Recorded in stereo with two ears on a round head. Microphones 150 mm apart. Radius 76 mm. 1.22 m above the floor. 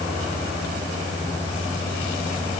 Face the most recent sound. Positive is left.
No sound to turn to.